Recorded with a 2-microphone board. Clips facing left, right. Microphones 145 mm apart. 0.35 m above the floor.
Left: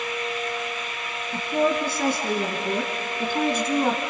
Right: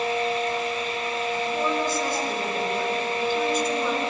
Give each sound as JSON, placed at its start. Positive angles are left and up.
{"t": 1.3, "sound": "a woman speaking", "side_deg": 75, "distance_m": 4.5}